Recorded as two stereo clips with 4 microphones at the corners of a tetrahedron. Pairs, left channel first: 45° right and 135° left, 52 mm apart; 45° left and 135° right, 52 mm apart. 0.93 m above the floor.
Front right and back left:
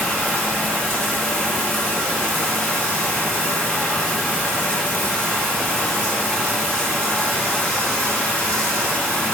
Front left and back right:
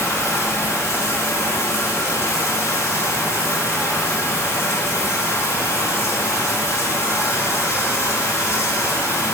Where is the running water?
20° left, 5 m.